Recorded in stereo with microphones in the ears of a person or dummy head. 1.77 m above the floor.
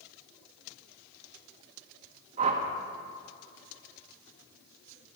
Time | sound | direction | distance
2.4 | a whoosh | 35° right (ahead or behind) | 1.6 m